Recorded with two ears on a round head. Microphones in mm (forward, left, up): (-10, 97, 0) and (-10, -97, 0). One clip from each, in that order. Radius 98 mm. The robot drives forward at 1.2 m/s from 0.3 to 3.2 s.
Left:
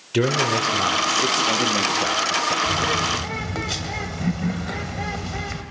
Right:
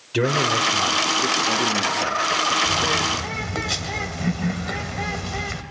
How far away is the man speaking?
About 2.5 m.